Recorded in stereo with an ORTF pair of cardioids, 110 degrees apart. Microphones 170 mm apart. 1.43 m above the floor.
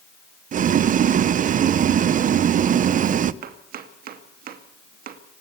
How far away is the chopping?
About 2.5 m.